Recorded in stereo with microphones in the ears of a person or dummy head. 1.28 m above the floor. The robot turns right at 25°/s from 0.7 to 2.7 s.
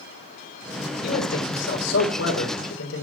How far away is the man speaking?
About 5.5 m.